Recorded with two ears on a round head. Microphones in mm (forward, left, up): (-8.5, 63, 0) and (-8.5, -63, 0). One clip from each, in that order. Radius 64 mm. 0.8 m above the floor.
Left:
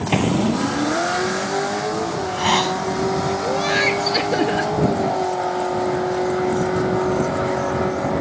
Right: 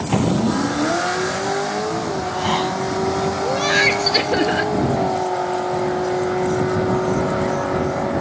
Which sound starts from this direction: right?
Laughter, at 3.4 s.